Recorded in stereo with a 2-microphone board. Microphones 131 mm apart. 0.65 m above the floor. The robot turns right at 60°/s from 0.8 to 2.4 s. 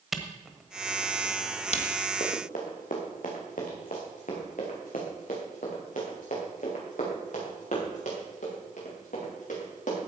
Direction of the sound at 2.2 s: 60° left (ahead or behind).